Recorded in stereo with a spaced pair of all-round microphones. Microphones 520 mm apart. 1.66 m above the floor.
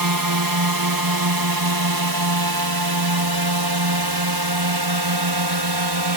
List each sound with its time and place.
0.0 s a drone: 40° right (ahead or behind); by 6.2 s 50° right (ahead or behind)